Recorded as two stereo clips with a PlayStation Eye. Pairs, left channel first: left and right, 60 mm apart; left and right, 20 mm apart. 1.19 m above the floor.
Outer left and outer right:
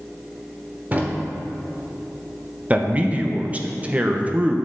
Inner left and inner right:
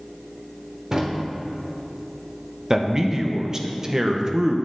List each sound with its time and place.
0.9 s a drawer: 30° right (ahead or behind), 1.2 m
2.7 s a man speaking: 25° right (ahead or behind), 0.8 m